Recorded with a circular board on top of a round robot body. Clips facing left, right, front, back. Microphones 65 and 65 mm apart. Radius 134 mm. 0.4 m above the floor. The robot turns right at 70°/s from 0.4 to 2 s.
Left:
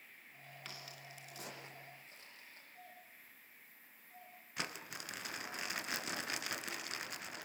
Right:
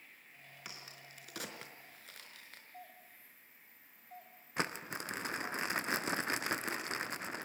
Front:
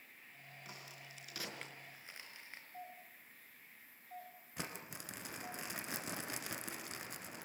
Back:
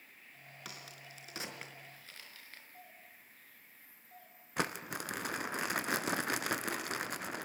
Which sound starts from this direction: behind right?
Crumpling, at 4.6 s.